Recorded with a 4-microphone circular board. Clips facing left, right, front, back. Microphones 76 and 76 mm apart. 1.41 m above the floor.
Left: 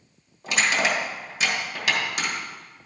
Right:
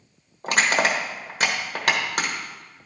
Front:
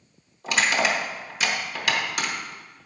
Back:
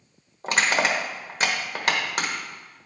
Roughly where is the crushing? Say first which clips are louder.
Right 2 dB, even; behind right.